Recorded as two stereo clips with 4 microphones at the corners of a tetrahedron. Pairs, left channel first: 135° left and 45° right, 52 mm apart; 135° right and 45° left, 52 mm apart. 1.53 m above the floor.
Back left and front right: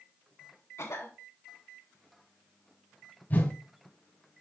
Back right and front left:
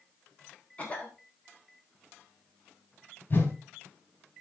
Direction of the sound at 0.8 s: 160° left.